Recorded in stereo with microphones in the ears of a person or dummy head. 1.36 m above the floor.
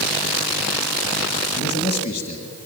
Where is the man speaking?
35° left (ahead or behind), 1.5 m.